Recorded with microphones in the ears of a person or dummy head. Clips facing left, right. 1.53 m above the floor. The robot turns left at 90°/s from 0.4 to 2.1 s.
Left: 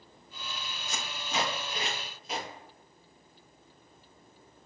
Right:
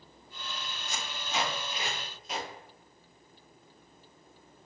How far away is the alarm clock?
I don't hear an alarm clock.